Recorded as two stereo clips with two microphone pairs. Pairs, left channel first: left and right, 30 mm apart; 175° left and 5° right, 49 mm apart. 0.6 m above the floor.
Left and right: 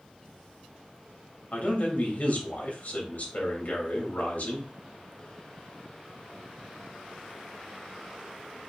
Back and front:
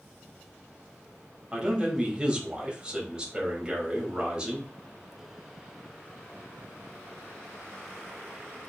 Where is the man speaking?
65° left, 3 m.